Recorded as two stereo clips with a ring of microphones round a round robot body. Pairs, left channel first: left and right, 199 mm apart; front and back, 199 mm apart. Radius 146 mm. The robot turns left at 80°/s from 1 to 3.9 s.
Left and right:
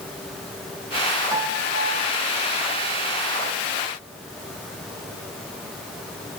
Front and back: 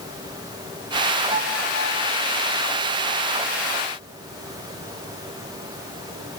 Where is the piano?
10° right, 5.5 m; by 2.1 s 75° right, 5.5 m.